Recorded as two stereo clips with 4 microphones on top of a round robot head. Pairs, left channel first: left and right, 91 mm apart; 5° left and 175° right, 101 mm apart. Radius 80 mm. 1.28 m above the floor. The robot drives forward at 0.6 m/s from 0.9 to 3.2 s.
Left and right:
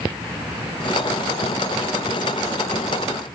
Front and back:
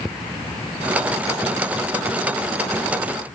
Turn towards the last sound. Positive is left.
No sound to turn to.